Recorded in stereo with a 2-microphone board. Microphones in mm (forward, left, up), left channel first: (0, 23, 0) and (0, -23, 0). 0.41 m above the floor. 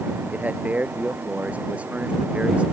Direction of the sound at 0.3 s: 35° right (ahead or behind).